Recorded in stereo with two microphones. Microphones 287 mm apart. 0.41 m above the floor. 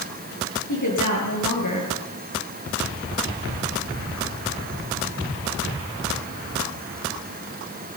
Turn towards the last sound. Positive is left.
turn(degrees=80)